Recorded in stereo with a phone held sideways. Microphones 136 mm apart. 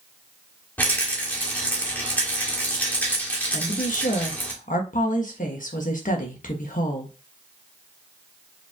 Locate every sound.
0.8 s a rattle: 10° left (ahead or behind), 1.3 m
3.5 s a woman speaking: 75° left (ahead or behind), 1.1 m